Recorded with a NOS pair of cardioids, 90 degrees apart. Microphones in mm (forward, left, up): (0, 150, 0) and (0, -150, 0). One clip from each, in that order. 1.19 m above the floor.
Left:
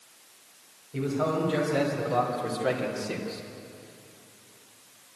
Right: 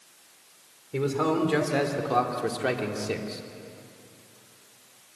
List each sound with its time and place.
0.9 s a man speaking: 70° right, 3.5 m; by 3.4 s 30° right, 3 m